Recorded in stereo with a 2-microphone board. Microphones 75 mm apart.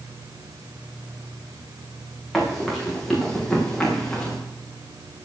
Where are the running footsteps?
Centre (ahead or behind), 9 m; by 4.4 s 10° left (ahead or behind), 6.5 m.